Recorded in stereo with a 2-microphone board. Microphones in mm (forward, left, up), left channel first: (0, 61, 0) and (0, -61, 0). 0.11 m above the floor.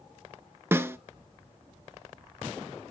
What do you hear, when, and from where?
0.7 s a snare drum: 20° right (ahead or behind), 0.6 m